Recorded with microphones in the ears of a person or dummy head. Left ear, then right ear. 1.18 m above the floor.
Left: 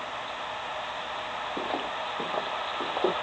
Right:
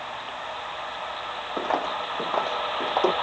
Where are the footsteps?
40° right (ahead or behind); by 3.1 s 45° right (ahead or behind).